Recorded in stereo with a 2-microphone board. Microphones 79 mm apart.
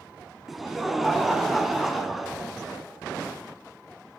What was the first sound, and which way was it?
Laughter, centre (ahead or behind).